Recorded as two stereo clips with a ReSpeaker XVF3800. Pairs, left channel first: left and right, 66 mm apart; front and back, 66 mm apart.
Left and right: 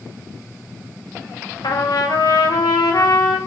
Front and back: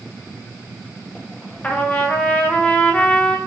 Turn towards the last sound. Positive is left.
turn(degrees=70)